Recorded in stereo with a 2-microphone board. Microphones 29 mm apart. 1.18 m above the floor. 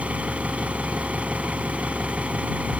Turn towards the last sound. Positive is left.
turn(degrees=-55)  # may be behind; listen again after turning